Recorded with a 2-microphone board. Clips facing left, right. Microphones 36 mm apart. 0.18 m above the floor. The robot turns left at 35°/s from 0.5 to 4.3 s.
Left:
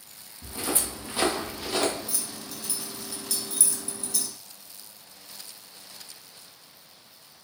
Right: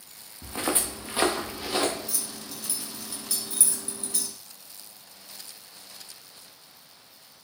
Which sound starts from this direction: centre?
Keys jangling, at 2.1 s.